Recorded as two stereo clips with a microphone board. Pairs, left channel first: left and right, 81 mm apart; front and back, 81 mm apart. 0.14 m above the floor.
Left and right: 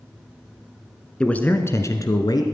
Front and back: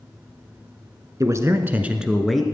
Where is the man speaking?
165° left, 1.3 m; by 2.4 s 85° left, 1.7 m.